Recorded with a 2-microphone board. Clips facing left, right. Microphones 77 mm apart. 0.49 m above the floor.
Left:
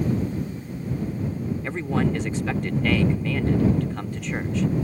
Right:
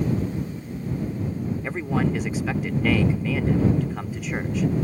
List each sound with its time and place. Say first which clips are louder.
1.6 s a man speaking: even; 5° right (ahead or behind)